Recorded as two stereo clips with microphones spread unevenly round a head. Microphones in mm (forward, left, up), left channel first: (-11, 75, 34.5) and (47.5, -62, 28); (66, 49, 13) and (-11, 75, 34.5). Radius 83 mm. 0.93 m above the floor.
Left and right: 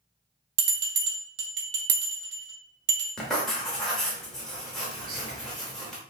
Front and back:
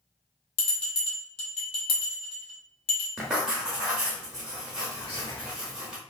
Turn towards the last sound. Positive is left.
turn(degrees=-60)